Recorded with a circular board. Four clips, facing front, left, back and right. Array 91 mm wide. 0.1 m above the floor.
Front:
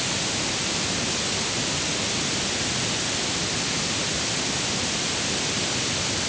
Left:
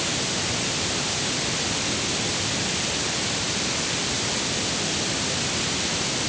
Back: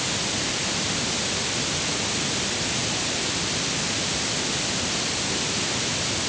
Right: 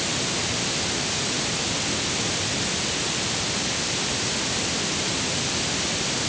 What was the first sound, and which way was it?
Only background noise.